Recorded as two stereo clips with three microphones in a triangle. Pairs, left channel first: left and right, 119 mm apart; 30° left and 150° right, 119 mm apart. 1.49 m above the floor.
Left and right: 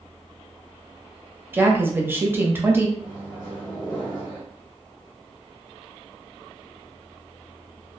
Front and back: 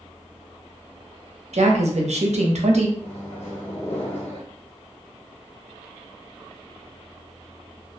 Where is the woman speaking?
160° right, 0.6 m.